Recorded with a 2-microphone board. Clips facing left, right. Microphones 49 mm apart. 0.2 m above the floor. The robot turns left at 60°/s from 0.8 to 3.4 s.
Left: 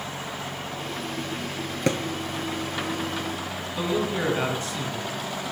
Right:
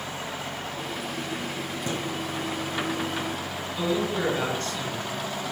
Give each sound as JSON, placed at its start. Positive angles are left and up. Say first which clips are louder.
{"t": 1.9, "sound": "a thud", "louder": "left 8 dB", "side_deg": 75, "distance_m": 1.0}
{"t": 3.8, "sound": "a man speaking", "louder": "even", "side_deg": 15, "distance_m": 2.0}